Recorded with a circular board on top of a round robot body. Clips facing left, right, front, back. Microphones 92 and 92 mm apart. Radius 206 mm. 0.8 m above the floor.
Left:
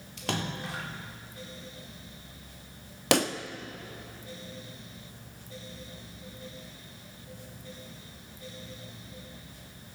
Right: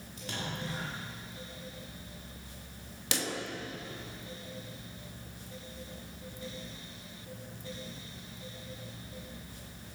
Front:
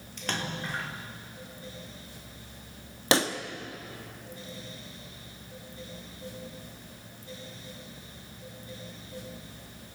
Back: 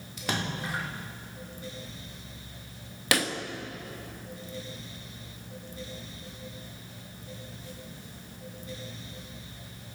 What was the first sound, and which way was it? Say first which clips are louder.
A splash: left 5 dB, back 2 dB; 100° left.